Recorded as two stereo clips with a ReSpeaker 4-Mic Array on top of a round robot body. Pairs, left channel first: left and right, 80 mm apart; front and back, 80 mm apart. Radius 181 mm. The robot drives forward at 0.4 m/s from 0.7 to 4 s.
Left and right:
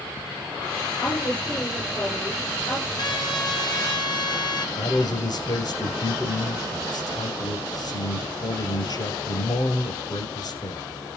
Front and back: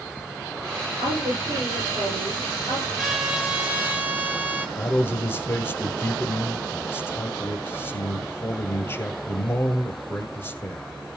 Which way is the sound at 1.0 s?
140° left.